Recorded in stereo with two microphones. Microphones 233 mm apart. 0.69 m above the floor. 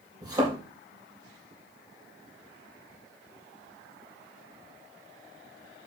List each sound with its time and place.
0.2 s a thud: 15° right (ahead or behind), 6.5 m